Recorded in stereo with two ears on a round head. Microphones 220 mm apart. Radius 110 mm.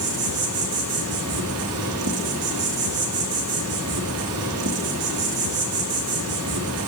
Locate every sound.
0.0 s an insect: 65° right (ahead or behind), 1.1 m